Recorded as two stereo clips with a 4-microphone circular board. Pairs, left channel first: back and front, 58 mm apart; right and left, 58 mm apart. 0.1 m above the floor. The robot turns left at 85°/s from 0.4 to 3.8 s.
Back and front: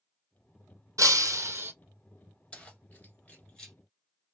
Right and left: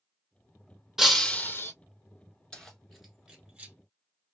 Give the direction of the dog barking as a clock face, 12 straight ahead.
No dog barking in this recording.